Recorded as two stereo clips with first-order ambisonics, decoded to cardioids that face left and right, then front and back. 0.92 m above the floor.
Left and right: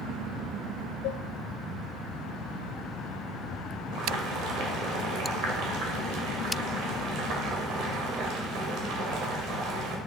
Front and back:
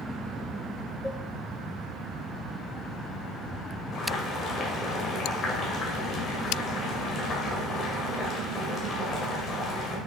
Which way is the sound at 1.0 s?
85° left.